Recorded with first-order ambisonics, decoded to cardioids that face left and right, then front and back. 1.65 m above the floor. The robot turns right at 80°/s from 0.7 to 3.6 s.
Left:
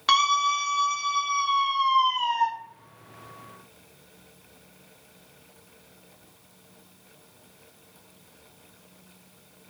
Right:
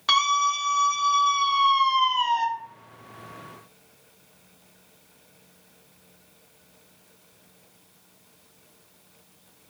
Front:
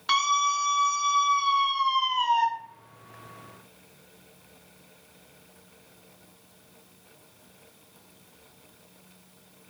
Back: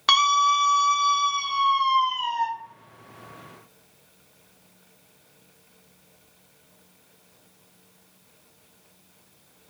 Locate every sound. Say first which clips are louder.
0.1 s a scream: even, back 5 dB; 170° left, 1.0 m; by 2.5 s 50° right, 1.0 m